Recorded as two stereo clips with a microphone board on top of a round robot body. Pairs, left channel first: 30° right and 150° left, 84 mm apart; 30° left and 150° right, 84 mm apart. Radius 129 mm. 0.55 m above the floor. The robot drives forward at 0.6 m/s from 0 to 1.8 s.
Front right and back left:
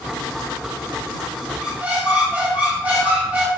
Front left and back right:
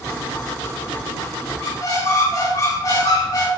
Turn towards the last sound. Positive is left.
turn(degrees=80)